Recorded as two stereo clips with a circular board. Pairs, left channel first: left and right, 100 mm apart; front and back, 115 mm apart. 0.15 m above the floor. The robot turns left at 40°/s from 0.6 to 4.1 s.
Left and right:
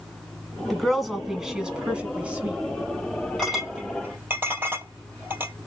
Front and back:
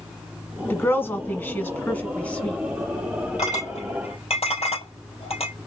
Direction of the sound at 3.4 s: 5° left.